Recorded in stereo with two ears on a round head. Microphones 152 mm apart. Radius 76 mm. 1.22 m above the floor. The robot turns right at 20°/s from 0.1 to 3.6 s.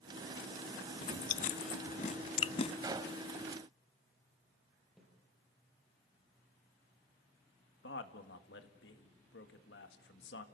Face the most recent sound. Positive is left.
turn(degrees=75)  # may be behind; listen again after turning